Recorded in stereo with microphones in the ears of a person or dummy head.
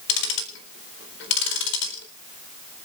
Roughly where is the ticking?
Left.